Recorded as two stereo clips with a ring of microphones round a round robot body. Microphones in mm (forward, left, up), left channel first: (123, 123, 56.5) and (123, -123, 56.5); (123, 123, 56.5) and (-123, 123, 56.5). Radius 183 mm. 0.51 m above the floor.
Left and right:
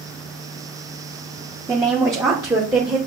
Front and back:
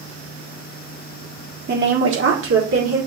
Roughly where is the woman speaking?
Behind.